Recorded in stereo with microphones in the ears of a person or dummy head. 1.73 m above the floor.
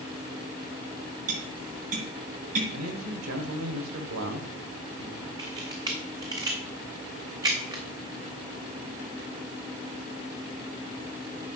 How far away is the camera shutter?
About 0.6 m.